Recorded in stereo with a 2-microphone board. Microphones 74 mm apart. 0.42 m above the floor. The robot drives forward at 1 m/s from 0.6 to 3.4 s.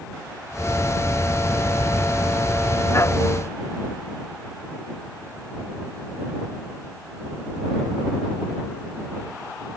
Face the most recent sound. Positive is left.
No sound to turn to.